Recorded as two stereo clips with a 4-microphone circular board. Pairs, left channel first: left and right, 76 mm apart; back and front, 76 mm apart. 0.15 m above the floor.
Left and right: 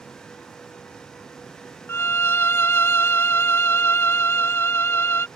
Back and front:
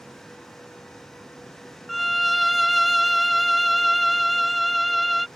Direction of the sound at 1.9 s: 90° left.